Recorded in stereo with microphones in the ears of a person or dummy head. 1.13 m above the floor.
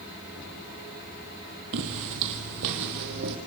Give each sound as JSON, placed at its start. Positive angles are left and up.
{"t": 1.7, "sound": "footsteps", "side_deg": -60, "distance_m": 2.5}